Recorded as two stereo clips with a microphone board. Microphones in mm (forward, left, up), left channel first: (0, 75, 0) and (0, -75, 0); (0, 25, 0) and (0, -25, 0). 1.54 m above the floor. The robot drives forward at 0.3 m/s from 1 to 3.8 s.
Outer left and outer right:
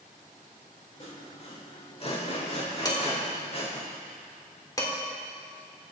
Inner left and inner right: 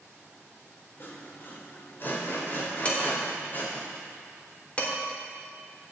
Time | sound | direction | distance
1.0 | sawing | 50° left (ahead or behind) | 3.5 m
2.9 | dishes clattering | 25° left (ahead or behind) | 3 m